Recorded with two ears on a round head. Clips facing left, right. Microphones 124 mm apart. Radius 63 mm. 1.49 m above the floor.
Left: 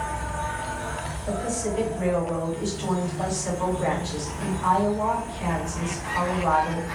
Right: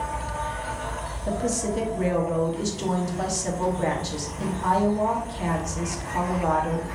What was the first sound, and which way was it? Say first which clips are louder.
An insect: even; 55° left (ahead or behind).